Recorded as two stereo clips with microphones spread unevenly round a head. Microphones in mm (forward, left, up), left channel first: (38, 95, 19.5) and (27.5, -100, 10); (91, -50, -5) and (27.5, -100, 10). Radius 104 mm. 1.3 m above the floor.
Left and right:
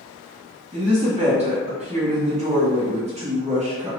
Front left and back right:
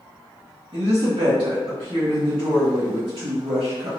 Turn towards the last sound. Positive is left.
turn(degrees=-155)